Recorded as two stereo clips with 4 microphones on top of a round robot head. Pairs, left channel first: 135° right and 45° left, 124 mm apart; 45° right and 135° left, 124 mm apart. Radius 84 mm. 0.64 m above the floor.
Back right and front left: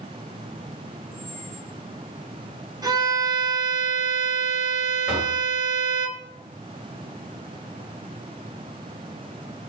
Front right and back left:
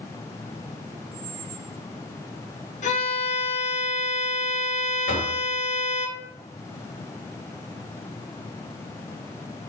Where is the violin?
15° right, 1.7 m.